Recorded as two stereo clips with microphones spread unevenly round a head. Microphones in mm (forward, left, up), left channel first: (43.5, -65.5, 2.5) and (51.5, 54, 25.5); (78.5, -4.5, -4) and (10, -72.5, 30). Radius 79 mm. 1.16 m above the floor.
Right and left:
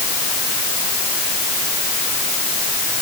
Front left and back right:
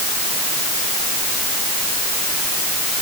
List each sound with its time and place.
Only background noise.